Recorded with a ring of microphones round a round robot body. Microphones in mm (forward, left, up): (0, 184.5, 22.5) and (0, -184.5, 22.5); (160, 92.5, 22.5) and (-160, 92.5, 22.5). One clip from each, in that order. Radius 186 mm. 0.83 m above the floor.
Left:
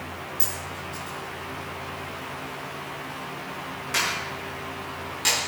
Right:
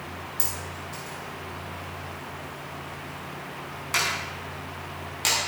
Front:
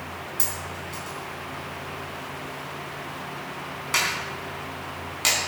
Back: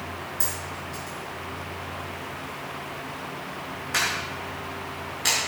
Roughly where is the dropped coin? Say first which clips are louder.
Left 1 dB, front 2 dB; ahead.